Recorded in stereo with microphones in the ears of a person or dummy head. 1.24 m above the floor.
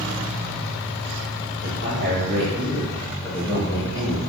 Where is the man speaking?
60° right (ahead or behind), 0.9 m; by 4.2 s 30° left (ahead or behind), 1.0 m.